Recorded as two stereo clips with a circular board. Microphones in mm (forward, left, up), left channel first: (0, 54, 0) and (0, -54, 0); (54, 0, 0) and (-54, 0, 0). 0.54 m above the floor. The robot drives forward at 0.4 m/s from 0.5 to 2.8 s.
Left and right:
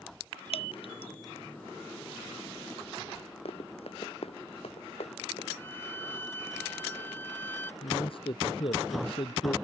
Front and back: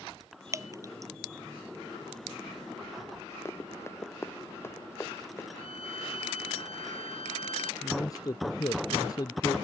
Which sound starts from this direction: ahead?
A violin, at 5.6 s.